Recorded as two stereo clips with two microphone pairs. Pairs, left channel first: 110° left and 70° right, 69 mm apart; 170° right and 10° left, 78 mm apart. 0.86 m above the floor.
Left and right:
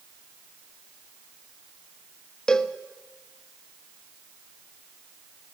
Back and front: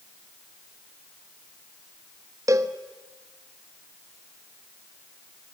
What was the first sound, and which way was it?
A cowbell, 30° left.